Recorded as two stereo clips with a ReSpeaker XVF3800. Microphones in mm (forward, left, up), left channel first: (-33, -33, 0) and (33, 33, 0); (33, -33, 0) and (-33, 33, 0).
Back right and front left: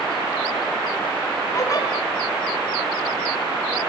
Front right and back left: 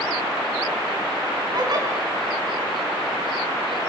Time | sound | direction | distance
1.5 | a giggle | 175° left | 5 m